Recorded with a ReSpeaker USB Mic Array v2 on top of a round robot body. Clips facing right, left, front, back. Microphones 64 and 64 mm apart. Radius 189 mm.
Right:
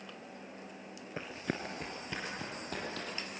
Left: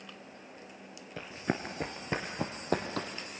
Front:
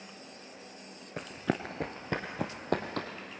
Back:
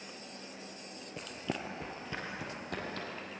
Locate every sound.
1.2 s running footsteps: 30° right, 0.6 m; by 3.1 s 40° left, 2 m